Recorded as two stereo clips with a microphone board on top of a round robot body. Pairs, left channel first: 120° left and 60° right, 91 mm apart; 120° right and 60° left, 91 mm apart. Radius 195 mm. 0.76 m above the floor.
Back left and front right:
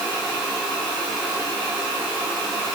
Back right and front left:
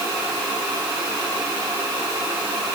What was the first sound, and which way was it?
Only background noise.